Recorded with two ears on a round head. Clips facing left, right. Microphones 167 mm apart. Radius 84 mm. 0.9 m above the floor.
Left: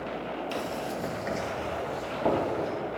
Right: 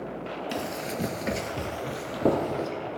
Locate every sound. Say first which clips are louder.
0.5 s running footsteps: right 2 dB; 15° right (ahead or behind), 1.2 m; by 2.7 s 30° right (ahead or behind), 2.5 m